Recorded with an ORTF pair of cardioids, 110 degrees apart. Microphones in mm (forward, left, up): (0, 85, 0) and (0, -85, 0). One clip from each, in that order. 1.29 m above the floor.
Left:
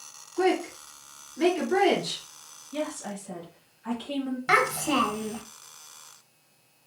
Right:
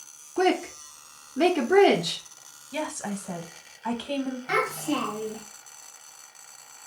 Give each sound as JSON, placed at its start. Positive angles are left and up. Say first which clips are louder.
{"t": 0.4, "sound": "a woman speaking", "louder": "right 1 dB", "azimuth_deg": -65, "distance_m": 0.7}
{"t": 2.7, "sound": "a woman speaking", "louder": "right 1 dB", "azimuth_deg": -65, "distance_m": 1.1}
{"t": 4.5, "sound": "a child speaking", "louder": "left 4 dB", "azimuth_deg": 45, "distance_m": 1.0}